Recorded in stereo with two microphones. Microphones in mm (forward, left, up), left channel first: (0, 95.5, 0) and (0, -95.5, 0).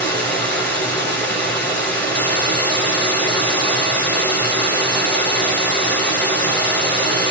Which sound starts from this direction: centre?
Running water, at 0.0 s.